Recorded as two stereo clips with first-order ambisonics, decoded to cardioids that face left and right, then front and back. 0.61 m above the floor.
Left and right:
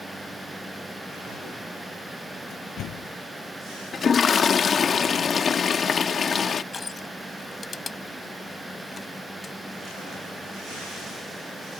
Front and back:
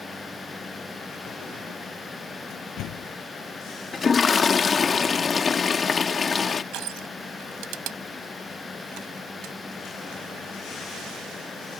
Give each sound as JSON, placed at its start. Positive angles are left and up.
{"t": 2.5, "sound": "a door slam", "azimuth_deg": 40}
{"t": 3.9, "sound": "a toilet flushing", "azimuth_deg": 50}
{"t": 6.7, "sound": "crushing", "azimuth_deg": 160}